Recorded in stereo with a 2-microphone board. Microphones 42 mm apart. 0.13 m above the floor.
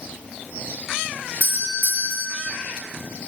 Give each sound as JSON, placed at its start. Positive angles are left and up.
{"t": 1.4, "sound": "a doorbell", "side_deg": 45, "distance_m": 2.5}